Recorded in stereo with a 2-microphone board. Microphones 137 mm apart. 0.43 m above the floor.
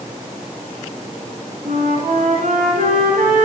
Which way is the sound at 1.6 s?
75° right (ahead or behind).